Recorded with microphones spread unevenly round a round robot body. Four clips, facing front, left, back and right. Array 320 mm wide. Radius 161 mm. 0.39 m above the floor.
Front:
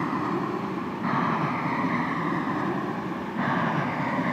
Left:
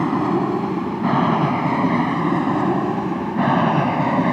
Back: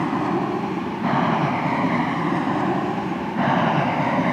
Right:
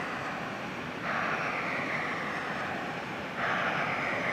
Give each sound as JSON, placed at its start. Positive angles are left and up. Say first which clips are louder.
{"t": 0.0, "sound": "an aircraft", "louder": "left 17 dB, back 5 dB", "azimuth_deg": 110}